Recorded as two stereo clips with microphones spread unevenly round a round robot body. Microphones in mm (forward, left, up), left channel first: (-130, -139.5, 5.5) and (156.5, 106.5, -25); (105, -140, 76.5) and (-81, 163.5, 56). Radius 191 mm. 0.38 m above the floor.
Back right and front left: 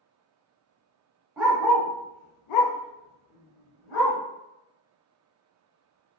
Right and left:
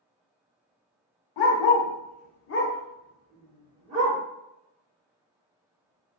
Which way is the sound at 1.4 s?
45° right.